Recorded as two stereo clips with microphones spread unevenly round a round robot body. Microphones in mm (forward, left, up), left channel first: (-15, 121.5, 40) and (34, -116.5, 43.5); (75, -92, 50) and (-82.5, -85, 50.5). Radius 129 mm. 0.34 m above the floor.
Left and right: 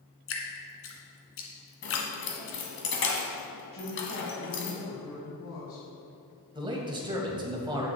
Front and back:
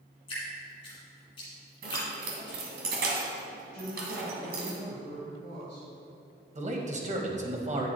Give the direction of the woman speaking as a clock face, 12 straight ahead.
8 o'clock.